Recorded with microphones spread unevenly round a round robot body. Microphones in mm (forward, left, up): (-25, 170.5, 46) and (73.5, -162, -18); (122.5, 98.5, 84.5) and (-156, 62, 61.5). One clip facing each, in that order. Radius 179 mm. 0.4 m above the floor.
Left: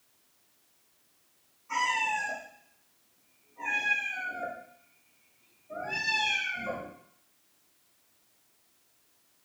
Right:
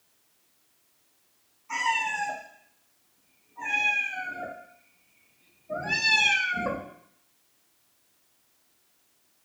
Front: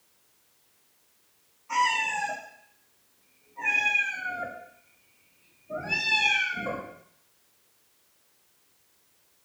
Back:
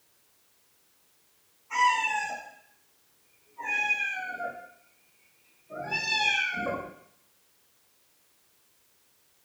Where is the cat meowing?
5° left, 5 m; by 6.9 s 95° right, 1.5 m.